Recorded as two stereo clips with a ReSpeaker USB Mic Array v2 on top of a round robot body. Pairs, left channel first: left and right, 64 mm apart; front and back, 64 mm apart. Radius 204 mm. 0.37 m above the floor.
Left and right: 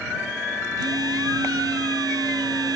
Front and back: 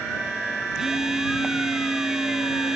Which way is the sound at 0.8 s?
95° right.